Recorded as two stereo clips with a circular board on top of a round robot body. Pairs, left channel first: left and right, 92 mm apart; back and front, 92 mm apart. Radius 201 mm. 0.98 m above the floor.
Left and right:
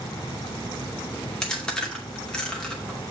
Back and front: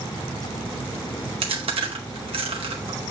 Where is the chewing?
10° left, 2.5 m.